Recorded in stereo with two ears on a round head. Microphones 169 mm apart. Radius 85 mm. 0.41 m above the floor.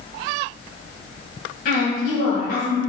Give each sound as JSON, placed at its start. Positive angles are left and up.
{"t": 1.6, "sound": "a woman speaking", "side_deg": 50, "distance_m": 2.5}